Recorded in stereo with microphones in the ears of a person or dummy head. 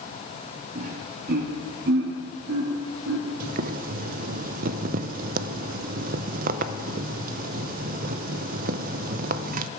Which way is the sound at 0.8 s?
40° right (ahead or behind).